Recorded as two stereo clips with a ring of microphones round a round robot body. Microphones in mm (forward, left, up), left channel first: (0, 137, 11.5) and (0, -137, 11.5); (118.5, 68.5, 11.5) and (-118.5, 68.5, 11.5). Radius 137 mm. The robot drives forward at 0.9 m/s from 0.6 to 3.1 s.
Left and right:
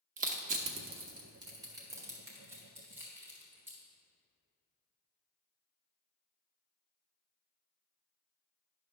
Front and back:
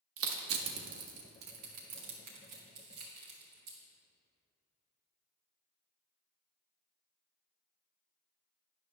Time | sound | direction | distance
0.2 | crushing | 150° right | 0.9 m